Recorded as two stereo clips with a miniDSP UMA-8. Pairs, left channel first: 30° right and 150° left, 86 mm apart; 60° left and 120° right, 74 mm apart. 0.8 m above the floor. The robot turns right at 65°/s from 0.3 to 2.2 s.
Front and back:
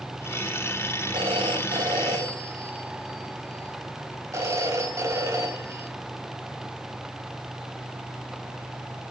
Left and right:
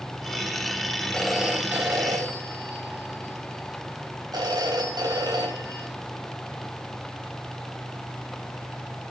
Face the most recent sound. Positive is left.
turn(degrees=-150)